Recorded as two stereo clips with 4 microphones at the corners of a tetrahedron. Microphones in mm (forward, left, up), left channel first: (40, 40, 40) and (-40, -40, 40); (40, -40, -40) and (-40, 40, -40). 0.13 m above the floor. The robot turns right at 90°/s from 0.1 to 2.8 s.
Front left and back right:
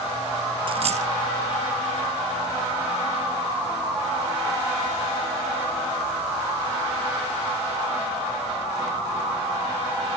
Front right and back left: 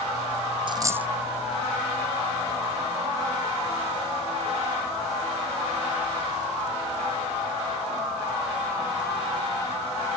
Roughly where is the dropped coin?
Behind.